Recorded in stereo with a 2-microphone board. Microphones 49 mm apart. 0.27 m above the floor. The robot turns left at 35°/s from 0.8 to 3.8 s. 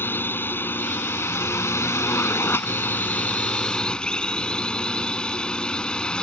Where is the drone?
125° left; by 6.2 s 20° left.